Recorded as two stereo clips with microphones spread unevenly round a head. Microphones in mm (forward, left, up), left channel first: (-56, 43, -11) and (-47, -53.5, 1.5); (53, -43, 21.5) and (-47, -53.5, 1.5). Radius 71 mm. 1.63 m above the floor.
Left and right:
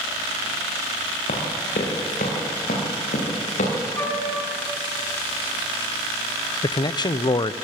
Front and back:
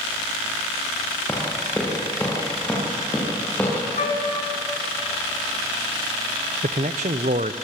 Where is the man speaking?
145° left, 0.8 m.